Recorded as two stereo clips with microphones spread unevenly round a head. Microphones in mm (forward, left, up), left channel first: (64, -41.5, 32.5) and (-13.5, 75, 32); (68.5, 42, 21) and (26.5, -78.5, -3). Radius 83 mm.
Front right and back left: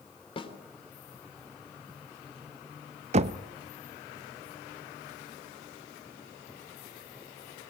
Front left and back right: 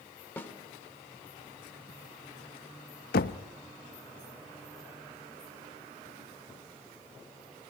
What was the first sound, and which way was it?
A snare drum, 5° right.